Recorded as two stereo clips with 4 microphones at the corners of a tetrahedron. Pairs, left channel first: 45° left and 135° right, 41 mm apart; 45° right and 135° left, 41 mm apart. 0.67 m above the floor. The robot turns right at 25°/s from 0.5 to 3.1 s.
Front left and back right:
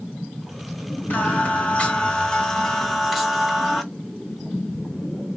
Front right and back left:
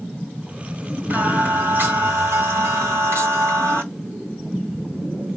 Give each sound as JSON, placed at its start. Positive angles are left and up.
{"t": 1.1, "sound": "singing", "azimuth_deg": 85, "distance_m": 1.0}